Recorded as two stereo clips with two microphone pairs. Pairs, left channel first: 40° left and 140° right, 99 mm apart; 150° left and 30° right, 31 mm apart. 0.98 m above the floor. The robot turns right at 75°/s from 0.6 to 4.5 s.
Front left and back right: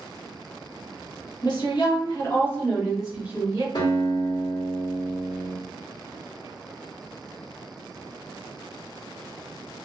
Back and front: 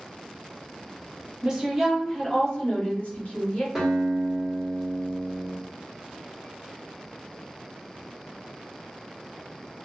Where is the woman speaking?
20° left, 1.2 m; by 3.6 s 175° right, 1.2 m.